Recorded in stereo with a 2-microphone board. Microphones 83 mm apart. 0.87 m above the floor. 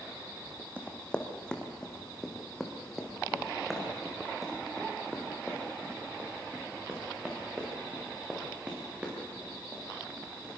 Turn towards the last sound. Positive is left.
turn(degrees=-15)  # may be behind; listen again after turning